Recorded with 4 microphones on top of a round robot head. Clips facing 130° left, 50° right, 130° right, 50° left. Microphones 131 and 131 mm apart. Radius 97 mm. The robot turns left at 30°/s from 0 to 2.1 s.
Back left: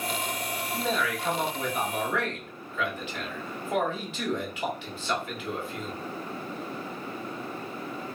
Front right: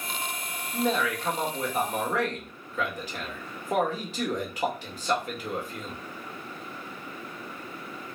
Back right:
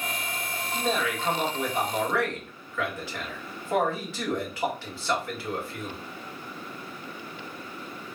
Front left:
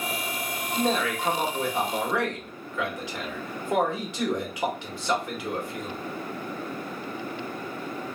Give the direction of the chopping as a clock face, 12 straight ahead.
No chopping in this recording.